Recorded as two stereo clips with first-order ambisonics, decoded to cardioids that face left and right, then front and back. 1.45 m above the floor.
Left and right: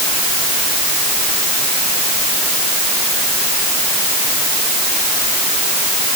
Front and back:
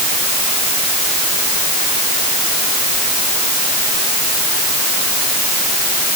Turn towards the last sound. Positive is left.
No sound to turn to.